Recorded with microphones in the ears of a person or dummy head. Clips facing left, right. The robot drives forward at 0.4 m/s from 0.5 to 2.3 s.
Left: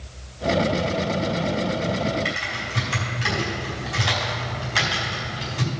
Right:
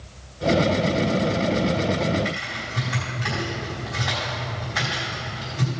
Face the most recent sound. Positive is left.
turn(degrees=45)  # may be behind; listen again after turning